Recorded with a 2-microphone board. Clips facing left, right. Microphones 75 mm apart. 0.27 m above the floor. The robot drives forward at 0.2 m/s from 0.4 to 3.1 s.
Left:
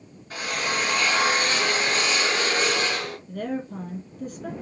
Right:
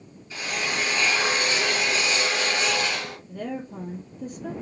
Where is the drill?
60° left (ahead or behind), 1.9 m; by 3.2 s 50° left (ahead or behind), 2 m.